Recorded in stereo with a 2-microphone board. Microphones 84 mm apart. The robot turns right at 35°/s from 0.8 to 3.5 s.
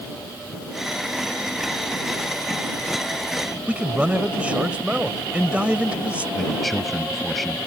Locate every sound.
3.7 s a man speaking: 15° right (ahead or behind)
6.3 s a man speaking: centre (ahead or behind)